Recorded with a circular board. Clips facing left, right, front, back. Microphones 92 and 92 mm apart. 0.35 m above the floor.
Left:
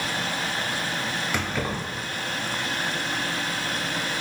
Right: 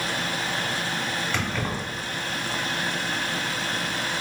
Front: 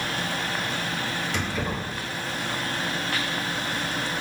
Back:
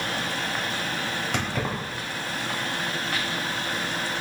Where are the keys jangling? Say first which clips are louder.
Even, back 2 dB; 165° left, 1.1 m.